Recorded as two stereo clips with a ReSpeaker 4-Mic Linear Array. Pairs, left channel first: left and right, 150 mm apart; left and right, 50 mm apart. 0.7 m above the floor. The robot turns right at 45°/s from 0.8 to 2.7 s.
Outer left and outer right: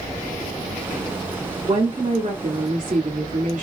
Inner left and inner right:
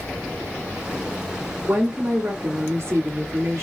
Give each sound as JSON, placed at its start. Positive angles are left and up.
{"t": 1.6, "sound": "a woman speaking", "azimuth_deg": -135, "distance_m": 1.4}